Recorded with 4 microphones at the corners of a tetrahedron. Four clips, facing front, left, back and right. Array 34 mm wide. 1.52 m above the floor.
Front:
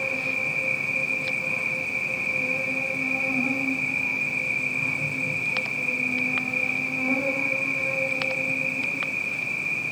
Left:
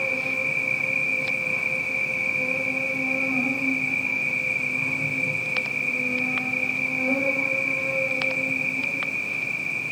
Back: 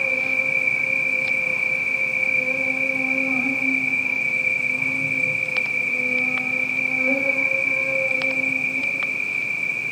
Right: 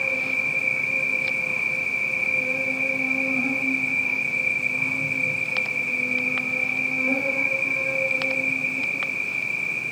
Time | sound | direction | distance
0.0 | an insect | 155° right | 4.5 m